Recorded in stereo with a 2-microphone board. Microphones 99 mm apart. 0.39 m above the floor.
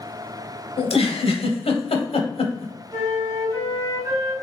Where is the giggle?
80° left, 0.8 m.